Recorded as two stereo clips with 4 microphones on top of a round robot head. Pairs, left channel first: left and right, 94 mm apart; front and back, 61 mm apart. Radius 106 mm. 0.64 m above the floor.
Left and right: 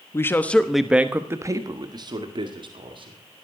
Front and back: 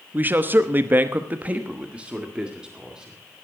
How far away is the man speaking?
About 1.1 m.